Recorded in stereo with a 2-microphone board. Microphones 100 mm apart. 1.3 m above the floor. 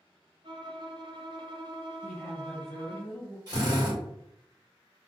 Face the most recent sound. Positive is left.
turn(degrees=-40)  # may be behind; listen again after turning